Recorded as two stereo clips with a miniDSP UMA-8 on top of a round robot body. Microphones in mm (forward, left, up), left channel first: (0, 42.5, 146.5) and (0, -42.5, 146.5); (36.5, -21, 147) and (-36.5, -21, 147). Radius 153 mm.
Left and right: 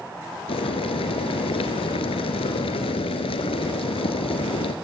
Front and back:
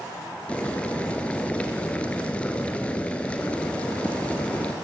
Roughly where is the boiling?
Left.